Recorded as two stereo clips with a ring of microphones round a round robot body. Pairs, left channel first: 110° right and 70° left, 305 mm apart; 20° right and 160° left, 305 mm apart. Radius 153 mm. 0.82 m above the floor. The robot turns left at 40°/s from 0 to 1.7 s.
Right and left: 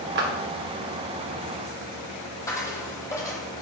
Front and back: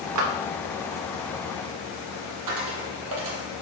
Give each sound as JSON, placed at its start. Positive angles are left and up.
{"t": 0.1, "sound": "a clap", "azimuth_deg": 125, "distance_m": 1.2}
{"t": 2.5, "sound": "a dropped coin", "azimuth_deg": 170, "distance_m": 1.4}